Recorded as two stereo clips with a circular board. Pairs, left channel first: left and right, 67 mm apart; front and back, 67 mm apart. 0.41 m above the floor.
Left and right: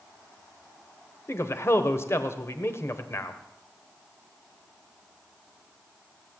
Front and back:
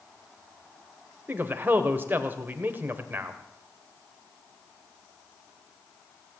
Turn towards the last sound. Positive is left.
turn(degrees=125)